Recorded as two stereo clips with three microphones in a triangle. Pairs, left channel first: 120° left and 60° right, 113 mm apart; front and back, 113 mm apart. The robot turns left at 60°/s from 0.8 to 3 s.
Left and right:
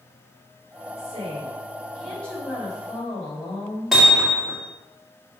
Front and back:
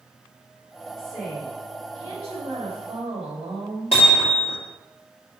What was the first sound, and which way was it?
A woman speaking, 85° right.